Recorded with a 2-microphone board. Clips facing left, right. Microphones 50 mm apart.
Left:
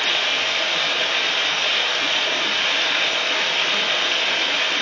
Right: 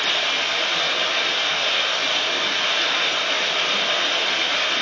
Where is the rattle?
I don't hear a rattle.